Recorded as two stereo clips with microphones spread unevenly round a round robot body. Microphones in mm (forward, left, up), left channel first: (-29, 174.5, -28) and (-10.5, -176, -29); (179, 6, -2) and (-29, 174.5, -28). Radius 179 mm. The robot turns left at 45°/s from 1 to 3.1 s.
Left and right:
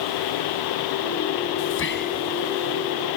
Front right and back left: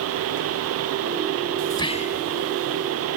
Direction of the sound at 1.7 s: 40° left.